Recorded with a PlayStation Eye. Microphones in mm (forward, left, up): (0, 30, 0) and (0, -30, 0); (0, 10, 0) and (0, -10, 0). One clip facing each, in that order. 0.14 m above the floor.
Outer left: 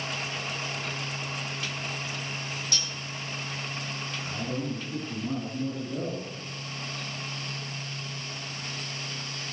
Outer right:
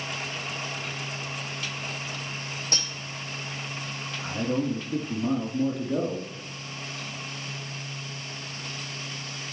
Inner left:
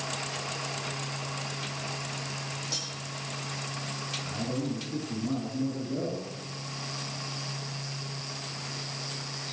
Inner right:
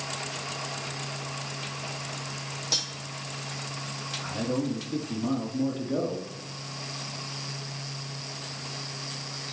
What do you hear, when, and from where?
2.7 s cutlery clinking: 35° right (ahead or behind), 3 m
4.2 s a man speaking: 65° right (ahead or behind), 4.5 m